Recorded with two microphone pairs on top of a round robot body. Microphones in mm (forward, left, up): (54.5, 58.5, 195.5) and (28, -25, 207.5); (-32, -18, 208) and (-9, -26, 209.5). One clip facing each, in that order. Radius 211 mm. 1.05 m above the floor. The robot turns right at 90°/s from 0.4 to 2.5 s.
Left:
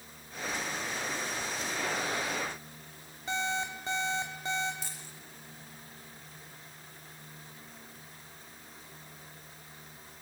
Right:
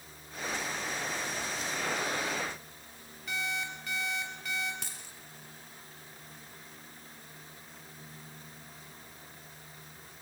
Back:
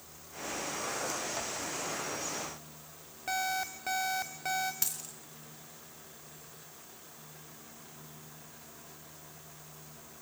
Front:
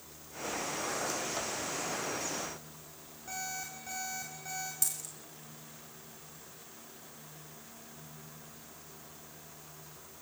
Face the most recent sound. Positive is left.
turn(degrees=-140)